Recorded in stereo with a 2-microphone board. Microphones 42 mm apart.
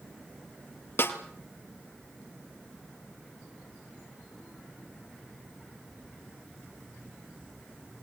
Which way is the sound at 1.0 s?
60° left (ahead or behind).